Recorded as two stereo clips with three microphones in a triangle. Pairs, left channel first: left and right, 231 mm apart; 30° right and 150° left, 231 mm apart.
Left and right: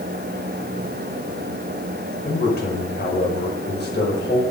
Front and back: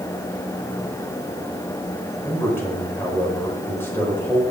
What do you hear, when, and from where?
2.2 s a man speaking: 50° left, 4.5 m